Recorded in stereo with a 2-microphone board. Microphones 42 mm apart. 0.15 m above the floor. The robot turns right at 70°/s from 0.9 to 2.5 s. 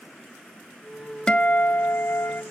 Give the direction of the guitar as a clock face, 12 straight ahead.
11 o'clock.